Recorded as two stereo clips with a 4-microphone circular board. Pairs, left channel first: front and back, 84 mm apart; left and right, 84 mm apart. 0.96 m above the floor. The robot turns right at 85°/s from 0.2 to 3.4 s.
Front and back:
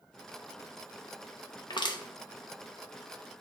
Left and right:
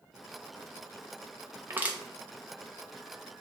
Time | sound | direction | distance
1.7 | crushing | 30° right | 0.9 m